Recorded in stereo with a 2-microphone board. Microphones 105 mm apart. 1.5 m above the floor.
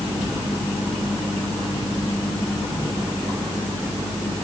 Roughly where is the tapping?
No tapping in this recording.